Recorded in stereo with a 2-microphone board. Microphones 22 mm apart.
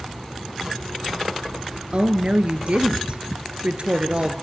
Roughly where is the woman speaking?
Right.